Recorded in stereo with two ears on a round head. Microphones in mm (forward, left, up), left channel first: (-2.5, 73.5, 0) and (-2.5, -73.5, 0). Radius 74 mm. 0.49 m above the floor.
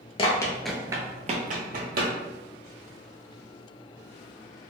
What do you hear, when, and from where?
0.2 s running footsteps: 30° left (ahead or behind), 0.7 m; by 2.1 s 65° right (ahead or behind), 1.2 m